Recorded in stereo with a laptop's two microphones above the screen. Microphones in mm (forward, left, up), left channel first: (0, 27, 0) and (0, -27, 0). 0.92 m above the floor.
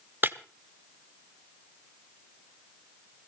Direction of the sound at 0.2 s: 40° right (ahead or behind).